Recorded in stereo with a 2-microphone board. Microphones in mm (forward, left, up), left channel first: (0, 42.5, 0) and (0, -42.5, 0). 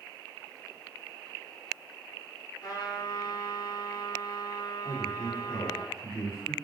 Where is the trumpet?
55° left (ahead or behind), 2 m.